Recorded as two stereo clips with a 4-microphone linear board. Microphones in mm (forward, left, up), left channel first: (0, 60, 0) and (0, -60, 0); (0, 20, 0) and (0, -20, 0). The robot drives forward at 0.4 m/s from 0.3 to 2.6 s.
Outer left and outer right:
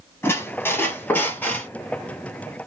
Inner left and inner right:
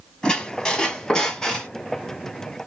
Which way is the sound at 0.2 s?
20° left (ahead or behind).